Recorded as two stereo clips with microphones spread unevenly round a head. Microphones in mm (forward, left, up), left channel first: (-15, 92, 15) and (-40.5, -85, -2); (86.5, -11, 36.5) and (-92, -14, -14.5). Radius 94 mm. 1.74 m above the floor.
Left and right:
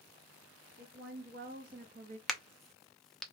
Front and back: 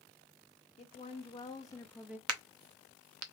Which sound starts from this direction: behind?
A crack, at 2.3 s.